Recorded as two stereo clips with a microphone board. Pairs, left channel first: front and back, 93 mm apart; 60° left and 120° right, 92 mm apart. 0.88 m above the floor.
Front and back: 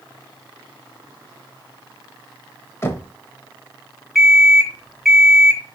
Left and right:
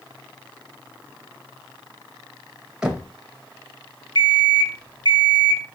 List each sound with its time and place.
2.8 s knocking: 45° right, 0.6 m
4.2 s an alarm clock: 90° left, 1.0 m